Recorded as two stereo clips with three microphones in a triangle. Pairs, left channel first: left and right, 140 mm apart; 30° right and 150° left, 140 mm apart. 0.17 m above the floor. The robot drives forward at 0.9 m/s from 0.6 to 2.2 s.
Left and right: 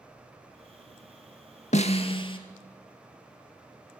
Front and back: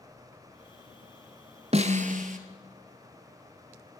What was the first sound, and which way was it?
A snare drum, 115° left.